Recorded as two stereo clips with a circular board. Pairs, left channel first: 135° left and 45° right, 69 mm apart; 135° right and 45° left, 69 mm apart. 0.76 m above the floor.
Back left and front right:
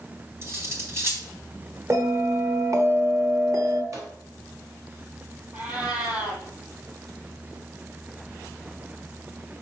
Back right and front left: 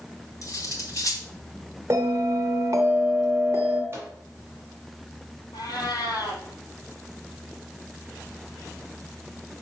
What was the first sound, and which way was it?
Cutlery clinking, 95° right.